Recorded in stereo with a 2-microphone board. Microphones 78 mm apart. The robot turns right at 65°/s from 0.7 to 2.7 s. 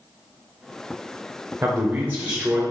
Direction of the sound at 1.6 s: 80° right.